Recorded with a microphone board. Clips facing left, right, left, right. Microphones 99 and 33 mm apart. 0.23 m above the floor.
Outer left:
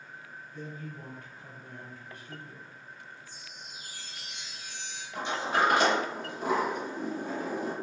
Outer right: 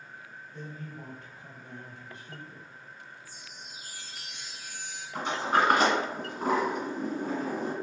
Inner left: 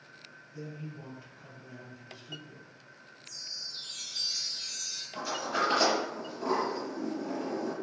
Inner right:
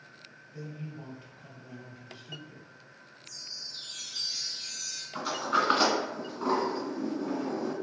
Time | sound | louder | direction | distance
0.5 | a man speaking | outer left 1 dB, inner right 1 dB | 25° right (ahead or behind) | 1.2 m
3.2 | a chime | even, inner left 1 dB | 5° right (ahead or behind) | 0.7 m
5.2 | a sliding door | outer right 2 dB, inner right 3 dB | 45° right (ahead or behind) | 1.5 m